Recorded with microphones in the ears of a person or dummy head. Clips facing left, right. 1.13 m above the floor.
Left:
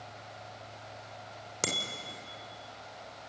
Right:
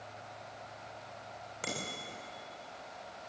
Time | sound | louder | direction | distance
1.6 | a bicycle bell | left 3 dB | 60° left (ahead or behind) | 2.5 m